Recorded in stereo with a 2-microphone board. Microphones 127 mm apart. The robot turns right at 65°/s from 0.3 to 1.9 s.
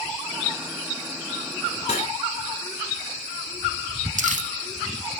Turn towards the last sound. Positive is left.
turn(degrees=-70)  # may be behind; listen again after turning